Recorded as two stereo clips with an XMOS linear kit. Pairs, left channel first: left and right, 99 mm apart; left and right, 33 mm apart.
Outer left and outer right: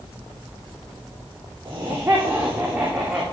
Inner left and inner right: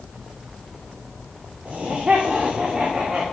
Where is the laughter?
30° right (ahead or behind), 3.5 m; by 3.2 s 10° right (ahead or behind), 2.5 m.